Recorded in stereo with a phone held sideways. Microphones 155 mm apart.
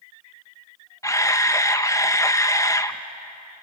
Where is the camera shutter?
20° left (ahead or behind), 0.8 m.